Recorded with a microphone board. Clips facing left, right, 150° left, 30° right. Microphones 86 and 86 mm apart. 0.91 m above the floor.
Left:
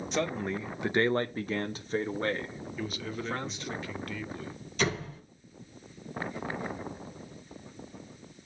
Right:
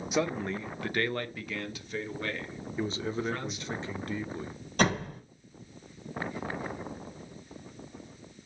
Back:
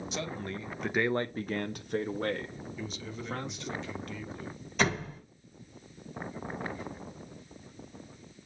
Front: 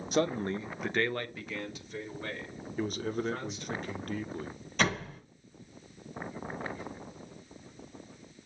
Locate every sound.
0.1 s a man speaking: 10° right, 0.9 m; by 3.8 s 145° left, 2.5 m
2.8 s a man speaking: 35° right, 1.1 m
4.8 s a door slam: 125° right, 5.5 m